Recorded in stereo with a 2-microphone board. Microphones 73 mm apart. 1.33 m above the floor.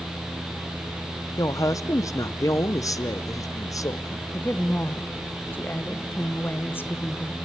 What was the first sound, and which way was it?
A woman speaking, 50° left (ahead or behind).